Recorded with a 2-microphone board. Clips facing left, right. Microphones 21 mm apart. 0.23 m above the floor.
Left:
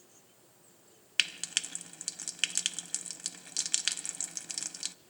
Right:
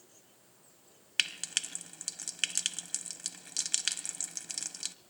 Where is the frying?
Centre (ahead or behind), 0.5 m.